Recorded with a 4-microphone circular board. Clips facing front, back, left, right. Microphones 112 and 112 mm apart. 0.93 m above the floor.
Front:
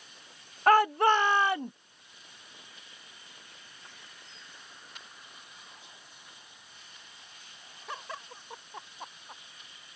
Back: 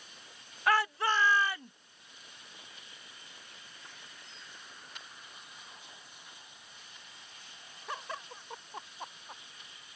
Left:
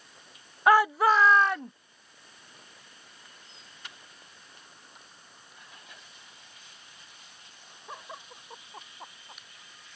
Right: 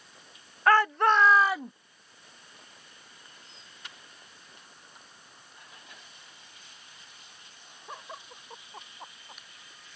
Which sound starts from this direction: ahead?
A shout, at 0.7 s.